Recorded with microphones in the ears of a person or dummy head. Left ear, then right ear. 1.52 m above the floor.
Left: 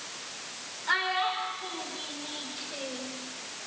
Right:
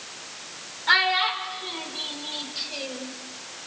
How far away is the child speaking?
About 3.5 m.